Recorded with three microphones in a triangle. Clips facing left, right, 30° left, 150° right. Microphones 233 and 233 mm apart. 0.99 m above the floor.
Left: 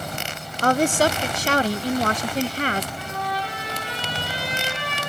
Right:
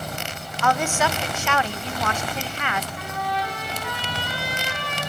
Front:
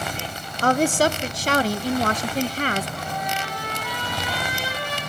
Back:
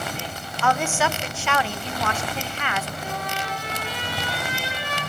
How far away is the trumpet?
About 9.5 m.